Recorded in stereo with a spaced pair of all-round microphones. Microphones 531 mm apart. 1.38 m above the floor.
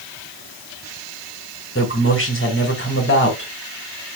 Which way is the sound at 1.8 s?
25° left (ahead or behind).